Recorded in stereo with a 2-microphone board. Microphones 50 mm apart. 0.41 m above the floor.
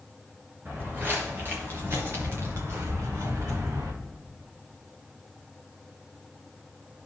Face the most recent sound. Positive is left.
turn(degrees=-75)  # may be behind; listen again after turning